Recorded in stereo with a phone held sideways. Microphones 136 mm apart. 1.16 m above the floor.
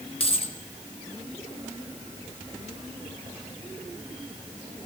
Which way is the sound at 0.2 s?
45° left (ahead or behind).